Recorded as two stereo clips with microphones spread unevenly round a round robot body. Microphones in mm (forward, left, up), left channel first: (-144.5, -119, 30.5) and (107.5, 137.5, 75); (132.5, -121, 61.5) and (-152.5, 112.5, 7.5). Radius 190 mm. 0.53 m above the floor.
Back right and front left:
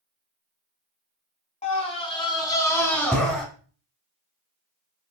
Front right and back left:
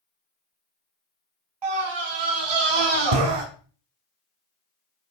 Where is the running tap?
I don't hear a running tap.